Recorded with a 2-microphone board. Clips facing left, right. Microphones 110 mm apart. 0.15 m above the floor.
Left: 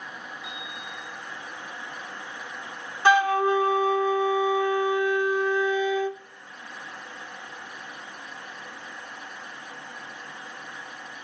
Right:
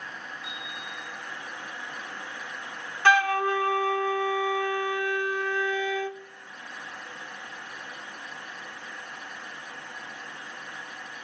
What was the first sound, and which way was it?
A bicycle bell, centre (ahead or behind).